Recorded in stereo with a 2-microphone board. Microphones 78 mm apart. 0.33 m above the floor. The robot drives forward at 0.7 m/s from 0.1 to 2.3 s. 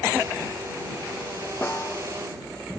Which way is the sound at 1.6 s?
30° left (ahead or behind).